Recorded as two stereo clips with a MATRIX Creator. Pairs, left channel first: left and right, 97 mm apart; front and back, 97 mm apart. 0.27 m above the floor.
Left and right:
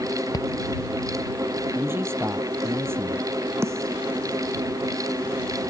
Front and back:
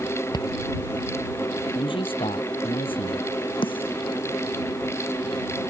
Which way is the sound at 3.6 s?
30° right.